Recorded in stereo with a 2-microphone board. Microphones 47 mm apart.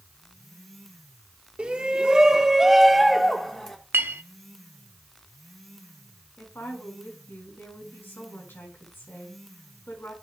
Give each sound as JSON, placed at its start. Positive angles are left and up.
{"t": 1.6, "sound": "a shout", "side_deg": -20, "distance_m": 1.2}
{"t": 3.9, "sound": "a clink", "side_deg": -55, "distance_m": 0.6}
{"t": 6.4, "sound": "a woman speaking", "side_deg": 55, "distance_m": 4.5}